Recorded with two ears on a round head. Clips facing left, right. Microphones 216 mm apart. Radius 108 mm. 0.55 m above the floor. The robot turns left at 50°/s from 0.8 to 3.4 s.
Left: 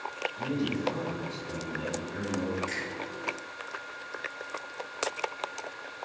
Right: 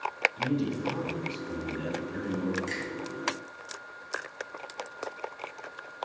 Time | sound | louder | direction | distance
0.4 | a man speaking | right 1 dB | 55° right | 3.5 m
2.7 | a finger snap | right 2 dB | 65° right (ahead or behind) | 3.5 m